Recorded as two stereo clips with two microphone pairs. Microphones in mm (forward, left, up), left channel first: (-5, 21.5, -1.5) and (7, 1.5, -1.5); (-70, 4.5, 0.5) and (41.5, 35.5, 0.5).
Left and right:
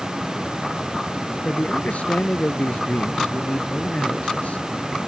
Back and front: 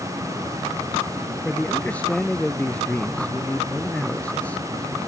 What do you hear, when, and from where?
1.4 s a man speaking: 115° left